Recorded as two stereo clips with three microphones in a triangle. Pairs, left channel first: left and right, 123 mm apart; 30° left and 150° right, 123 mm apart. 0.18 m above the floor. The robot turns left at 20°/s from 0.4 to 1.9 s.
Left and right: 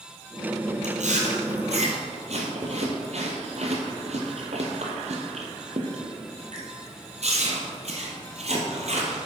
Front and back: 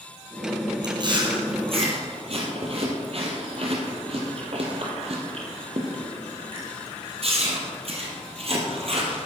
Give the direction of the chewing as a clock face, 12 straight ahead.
3 o'clock.